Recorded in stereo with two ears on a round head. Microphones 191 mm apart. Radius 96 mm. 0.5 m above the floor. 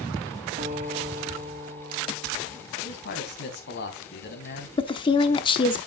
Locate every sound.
0.6 s a guitar: 35° right (ahead or behind), 1.5 m
2.8 s a man speaking: 50° left (ahead or behind), 3 m
4.8 s a woman speaking: 25° left (ahead or behind), 0.8 m